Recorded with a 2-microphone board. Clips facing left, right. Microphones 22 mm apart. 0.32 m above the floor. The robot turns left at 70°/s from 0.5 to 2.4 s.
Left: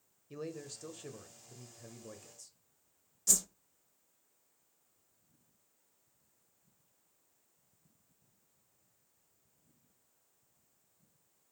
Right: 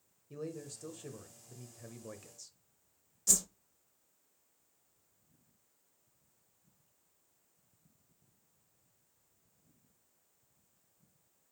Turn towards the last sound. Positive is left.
turn(degrees=0)  # may be behind; listen again after turning